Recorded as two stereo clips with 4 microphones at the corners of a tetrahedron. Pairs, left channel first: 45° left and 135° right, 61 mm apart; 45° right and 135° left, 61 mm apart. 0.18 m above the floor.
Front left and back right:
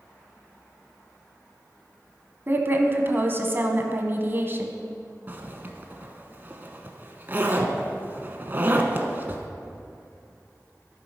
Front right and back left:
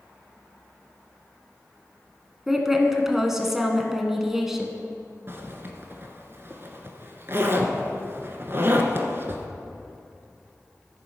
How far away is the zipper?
About 1.1 m.